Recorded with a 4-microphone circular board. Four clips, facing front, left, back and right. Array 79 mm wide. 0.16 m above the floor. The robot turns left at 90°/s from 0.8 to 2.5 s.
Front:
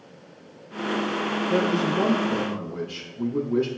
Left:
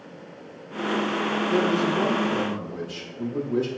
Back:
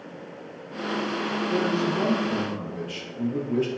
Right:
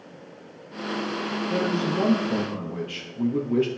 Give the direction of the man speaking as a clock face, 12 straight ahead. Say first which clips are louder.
Left 2 dB, front 2 dB; 12 o'clock.